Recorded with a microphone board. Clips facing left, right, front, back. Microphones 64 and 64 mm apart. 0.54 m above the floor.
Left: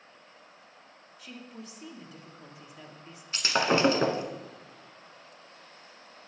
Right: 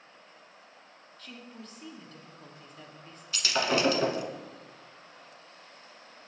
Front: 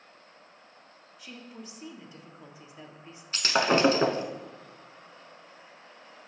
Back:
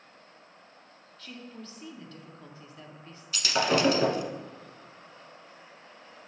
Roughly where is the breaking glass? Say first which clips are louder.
Left 2 dB, front 2 dB; ahead left.